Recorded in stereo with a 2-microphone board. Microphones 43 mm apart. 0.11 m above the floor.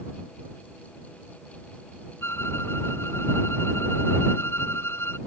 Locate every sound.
2.2 s a violin: 70° left (ahead or behind)